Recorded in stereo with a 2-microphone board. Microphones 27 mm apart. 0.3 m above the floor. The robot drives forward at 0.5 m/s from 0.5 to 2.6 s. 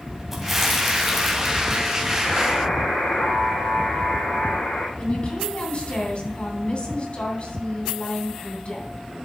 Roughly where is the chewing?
Centre.